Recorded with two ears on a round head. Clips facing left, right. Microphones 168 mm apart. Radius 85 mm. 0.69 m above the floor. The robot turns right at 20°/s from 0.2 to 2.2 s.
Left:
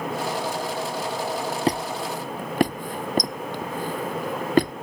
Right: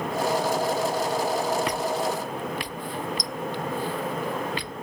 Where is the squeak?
30° left (ahead or behind); by 4.7 s 40° left (ahead or behind).